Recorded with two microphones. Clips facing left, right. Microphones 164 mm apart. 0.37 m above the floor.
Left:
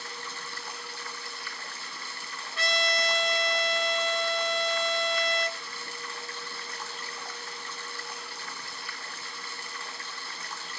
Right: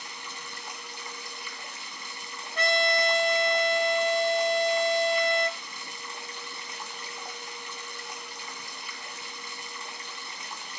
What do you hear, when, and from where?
0.0 s running water: 20° right (ahead or behind), 3.5 m
2.5 s a trumpet: 55° right (ahead or behind), 3.5 m